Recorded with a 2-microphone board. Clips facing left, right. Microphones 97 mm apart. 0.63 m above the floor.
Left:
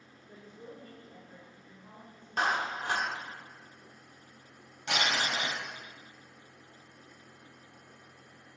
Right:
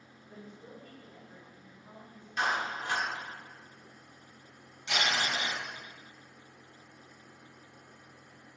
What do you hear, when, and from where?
0.3 s a woman speaking: 40° left (ahead or behind), 2 m
2.4 s a clap: 50° left (ahead or behind), 1.5 m
4.9 s crumpling: 75° left (ahead or behind), 3 m